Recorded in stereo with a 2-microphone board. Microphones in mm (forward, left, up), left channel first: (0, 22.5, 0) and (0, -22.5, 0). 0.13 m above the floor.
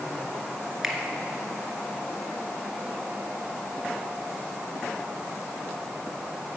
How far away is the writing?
No writing in this recording.